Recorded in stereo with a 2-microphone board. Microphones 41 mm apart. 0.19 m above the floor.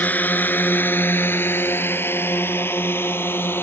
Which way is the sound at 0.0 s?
45° left (ahead or behind).